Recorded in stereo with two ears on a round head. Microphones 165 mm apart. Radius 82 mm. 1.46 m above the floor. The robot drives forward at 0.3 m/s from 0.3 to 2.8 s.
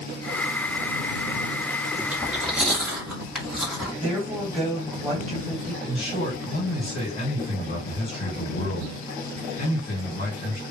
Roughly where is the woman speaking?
Centre.